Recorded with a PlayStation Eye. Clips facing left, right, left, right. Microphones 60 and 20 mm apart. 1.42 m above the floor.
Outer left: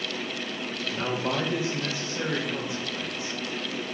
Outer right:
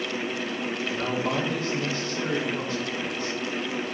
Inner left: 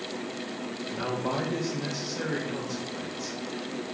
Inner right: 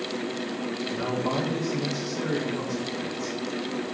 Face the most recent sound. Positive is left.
turn(degrees=15)  # may be behind; listen again after turning